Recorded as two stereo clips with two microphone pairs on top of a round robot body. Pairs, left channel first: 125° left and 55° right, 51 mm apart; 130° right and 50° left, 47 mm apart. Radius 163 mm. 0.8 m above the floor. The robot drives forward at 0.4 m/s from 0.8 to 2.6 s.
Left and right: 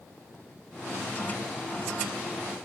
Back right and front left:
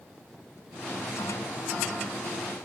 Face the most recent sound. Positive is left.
No sound to turn to.